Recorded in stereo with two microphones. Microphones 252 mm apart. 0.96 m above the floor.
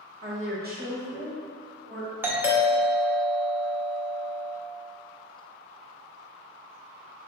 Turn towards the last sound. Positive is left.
turn(degrees=-10)  # may be behind; listen again after turning